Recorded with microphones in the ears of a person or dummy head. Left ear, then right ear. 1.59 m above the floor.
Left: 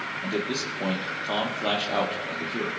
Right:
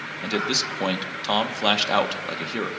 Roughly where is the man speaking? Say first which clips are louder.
Right 7 dB; right.